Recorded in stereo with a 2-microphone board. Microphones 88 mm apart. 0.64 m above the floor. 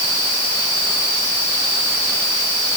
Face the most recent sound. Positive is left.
No sound to turn to.